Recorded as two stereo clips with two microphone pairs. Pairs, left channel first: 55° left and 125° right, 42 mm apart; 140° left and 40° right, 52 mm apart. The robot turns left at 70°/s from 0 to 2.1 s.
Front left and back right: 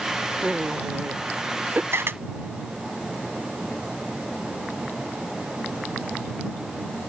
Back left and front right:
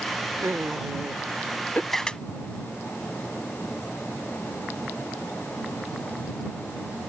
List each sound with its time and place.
0.4 s laughter: 65° right; by 1.8 s 165° right
1.9 s a camera shutter: 135° right; by 2.2 s 150° right